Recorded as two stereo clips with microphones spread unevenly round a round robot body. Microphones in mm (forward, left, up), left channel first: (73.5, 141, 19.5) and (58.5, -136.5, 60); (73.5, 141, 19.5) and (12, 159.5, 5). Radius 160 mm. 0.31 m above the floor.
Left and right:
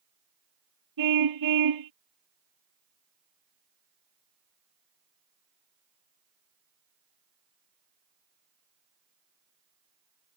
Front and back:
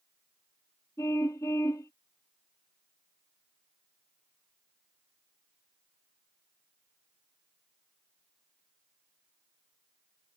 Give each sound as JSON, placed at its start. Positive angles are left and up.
{"t": 1.0, "sound": "a car horn", "azimuth_deg": -90}